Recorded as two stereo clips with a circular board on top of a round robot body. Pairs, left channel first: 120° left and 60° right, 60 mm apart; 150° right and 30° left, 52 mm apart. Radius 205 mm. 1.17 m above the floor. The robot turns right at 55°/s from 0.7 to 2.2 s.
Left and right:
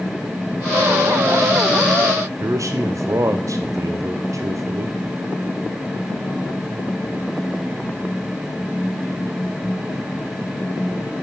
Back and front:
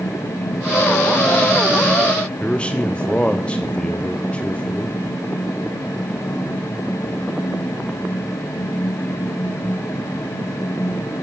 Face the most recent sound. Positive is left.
turn(degrees=-80)